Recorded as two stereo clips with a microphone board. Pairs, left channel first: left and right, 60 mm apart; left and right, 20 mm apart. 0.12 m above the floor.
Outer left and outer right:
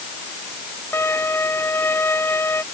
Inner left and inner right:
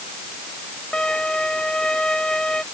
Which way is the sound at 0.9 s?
45° left (ahead or behind).